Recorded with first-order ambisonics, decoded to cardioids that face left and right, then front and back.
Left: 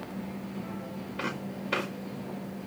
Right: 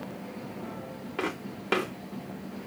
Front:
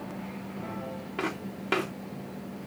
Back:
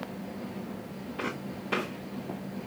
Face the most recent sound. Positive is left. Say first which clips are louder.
# right 2 dB, front 2 dB
turn(degrees=-55)